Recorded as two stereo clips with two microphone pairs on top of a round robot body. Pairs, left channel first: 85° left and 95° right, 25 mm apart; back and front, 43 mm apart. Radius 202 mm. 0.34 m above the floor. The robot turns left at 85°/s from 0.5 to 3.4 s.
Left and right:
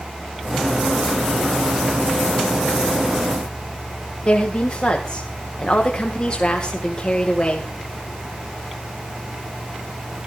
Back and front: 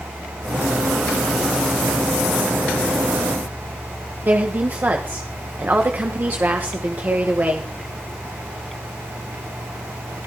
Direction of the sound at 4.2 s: 40° left.